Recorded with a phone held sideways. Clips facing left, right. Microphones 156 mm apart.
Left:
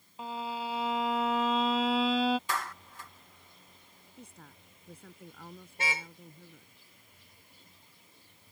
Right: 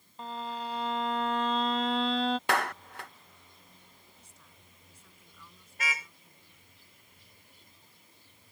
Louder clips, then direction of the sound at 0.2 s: Left 1 dB; 5° left (ahead or behind).